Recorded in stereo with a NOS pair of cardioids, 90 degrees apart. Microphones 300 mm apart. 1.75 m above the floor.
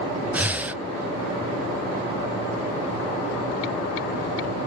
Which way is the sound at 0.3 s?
5° right.